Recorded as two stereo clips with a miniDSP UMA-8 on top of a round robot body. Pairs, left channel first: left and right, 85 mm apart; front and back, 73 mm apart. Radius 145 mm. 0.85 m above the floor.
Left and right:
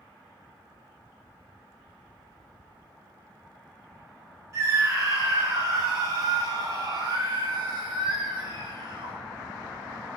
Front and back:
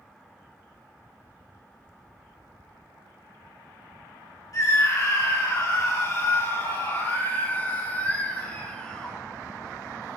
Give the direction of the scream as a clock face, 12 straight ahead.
1 o'clock.